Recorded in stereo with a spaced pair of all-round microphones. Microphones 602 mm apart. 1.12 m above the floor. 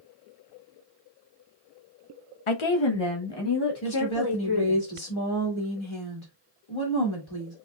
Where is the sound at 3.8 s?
50° left (ahead or behind), 1.8 m.